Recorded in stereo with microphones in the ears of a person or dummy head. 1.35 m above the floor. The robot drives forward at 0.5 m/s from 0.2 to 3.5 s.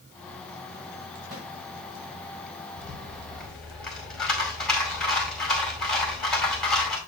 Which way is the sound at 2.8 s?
5° left (ahead or behind).